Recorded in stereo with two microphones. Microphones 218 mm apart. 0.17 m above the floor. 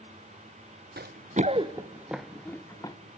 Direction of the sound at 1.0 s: 50° right (ahead or behind).